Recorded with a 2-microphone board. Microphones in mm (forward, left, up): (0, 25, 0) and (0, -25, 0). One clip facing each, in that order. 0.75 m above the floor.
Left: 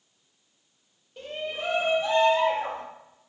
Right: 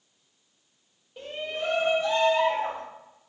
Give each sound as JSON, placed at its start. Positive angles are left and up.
{"t": 1.2, "sound": "a shout", "side_deg": -10, "distance_m": 0.9}